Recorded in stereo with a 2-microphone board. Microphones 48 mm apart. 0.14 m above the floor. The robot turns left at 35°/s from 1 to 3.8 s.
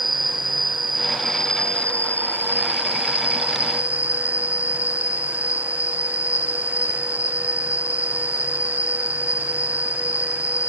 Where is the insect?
Straight behind, 0.9 m; by 10.7 s 80° left, 0.9 m.